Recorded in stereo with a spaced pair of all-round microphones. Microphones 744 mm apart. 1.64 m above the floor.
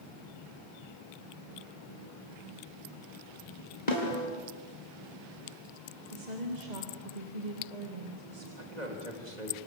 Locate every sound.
3.9 s a snare drum: 60° left (ahead or behind), 4.5 m
6.1 s a woman speaking: 65° right (ahead or behind), 2.5 m
8.6 s a man speaking: 60° right (ahead or behind), 3.5 m